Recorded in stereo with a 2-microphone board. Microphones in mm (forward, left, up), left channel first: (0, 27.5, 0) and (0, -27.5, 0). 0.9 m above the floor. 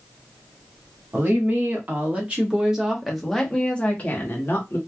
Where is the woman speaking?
40° right (ahead or behind), 1.6 m; by 4.8 s 45° left (ahead or behind), 1.1 m.